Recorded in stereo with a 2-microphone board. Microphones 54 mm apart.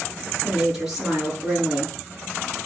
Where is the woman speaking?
10° right (ahead or behind), 6.5 m.